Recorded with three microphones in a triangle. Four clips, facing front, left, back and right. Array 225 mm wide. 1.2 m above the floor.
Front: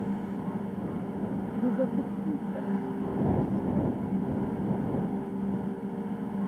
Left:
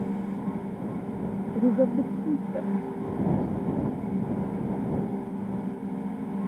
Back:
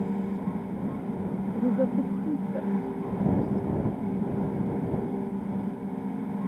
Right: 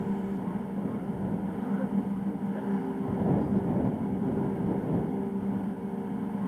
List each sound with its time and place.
1.6 s a woman speaking: 95° left; by 3.9 s 130° left